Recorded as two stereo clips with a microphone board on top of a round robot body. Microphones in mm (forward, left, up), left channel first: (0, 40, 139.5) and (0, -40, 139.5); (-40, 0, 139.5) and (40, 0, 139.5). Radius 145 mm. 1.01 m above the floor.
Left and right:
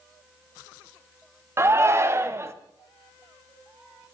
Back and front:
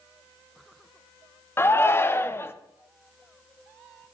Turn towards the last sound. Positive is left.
turn(degrees=-130)